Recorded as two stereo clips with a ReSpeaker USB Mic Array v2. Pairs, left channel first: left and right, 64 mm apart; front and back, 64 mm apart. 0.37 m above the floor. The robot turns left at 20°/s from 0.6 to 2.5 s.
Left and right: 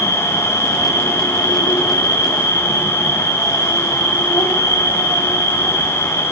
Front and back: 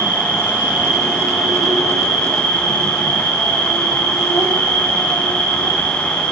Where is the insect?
115° left, 3.5 m; by 6.3 s 75° left, 3.5 m.